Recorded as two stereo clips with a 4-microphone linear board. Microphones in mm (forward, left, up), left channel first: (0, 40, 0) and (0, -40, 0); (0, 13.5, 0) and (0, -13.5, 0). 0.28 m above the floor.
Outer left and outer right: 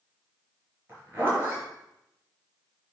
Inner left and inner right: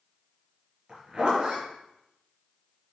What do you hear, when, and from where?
0.9 s a zipper: 25° right (ahead or behind), 4 m